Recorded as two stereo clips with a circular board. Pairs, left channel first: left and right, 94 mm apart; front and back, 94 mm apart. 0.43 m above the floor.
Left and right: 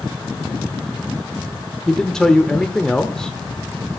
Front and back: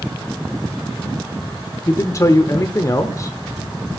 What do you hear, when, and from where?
1.9 s a man speaking: 10° left, 0.8 m